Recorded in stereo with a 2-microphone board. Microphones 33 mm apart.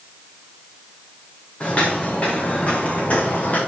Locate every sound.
1.6 s footsteps: 35° left (ahead or behind), 4.5 m; by 3.6 s 50° left (ahead or behind), 5.5 m